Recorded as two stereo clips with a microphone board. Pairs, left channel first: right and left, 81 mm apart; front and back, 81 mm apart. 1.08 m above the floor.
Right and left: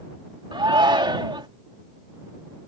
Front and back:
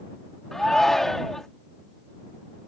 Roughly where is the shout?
Left.